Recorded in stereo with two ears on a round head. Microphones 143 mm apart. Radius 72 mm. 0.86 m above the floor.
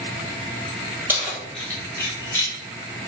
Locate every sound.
1.1 s keys jangling: 15° right (ahead or behind), 1.4 m; by 2.5 s 25° left (ahead or behind), 2.5 m